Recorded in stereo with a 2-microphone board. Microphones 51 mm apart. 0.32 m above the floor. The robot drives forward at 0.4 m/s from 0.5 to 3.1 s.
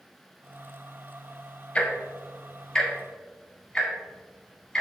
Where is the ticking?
20° left (ahead or behind), 0.7 m; by 4.8 s 10° left (ahead or behind), 1.1 m.